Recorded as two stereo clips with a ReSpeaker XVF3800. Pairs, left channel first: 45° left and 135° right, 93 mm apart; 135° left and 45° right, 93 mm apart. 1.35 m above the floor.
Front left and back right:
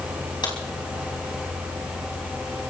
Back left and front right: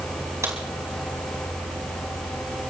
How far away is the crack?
About 4 m.